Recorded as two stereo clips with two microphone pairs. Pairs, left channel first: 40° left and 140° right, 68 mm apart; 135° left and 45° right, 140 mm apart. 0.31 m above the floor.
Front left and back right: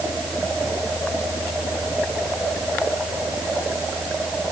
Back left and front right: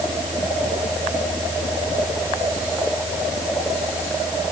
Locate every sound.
Only background noise.